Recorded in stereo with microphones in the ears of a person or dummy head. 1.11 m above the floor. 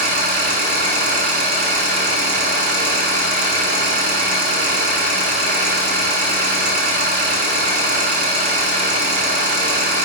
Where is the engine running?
50° right (ahead or behind), 1.1 m.